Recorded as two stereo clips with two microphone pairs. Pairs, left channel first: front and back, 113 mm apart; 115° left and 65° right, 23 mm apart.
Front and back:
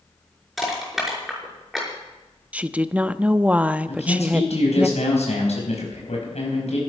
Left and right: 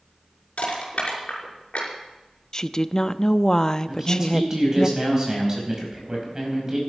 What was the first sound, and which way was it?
Crushing, 90° left.